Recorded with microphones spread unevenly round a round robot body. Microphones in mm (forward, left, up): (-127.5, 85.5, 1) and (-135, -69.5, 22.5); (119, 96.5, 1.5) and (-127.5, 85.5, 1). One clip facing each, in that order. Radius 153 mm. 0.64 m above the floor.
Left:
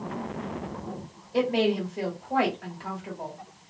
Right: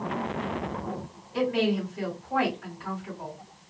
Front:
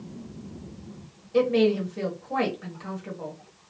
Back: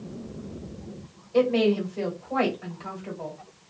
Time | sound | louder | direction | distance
1.3 | a woman speaking | left 2 dB, even | 65° left | 1.5 m